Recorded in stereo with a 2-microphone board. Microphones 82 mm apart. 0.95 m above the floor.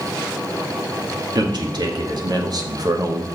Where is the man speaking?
60° right (ahead or behind), 2.0 m; by 3.3 s 40° right (ahead or behind), 1.0 m.